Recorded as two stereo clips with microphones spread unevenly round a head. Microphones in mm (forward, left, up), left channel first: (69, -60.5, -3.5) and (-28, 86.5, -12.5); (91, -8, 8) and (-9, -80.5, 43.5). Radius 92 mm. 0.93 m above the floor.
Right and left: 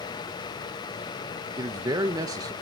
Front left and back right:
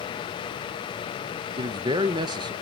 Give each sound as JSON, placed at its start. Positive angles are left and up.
{"t": 1.6, "sound": "a man speaking", "azimuth_deg": 165, "distance_m": 0.6}